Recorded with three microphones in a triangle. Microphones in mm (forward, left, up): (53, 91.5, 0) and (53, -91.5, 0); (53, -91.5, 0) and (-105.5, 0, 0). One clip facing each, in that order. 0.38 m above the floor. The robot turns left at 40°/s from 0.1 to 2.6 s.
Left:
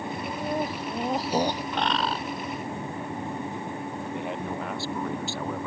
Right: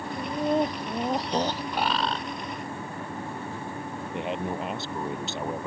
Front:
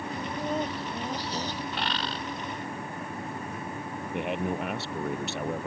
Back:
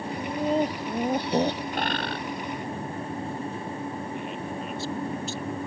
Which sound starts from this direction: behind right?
Laughter, at 0.2 s.